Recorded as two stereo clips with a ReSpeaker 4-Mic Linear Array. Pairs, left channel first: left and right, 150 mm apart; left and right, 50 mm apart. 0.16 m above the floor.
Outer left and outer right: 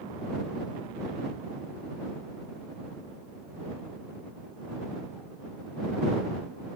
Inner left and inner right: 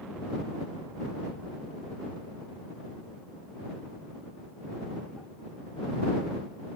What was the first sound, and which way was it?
Only background noise.